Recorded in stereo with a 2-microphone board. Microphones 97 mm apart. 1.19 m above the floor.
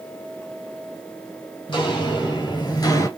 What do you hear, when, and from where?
1.7 s footsteps: 50° left (ahead or behind), 2.5 m; by 3.1 s 30° left (ahead or behind), 1.3 m